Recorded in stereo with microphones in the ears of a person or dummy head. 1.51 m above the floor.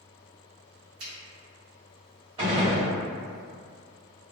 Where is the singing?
No singing in this recording.